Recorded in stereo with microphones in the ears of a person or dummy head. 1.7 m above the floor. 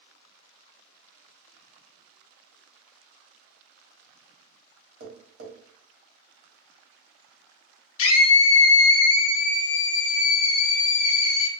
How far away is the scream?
About 0.5 m.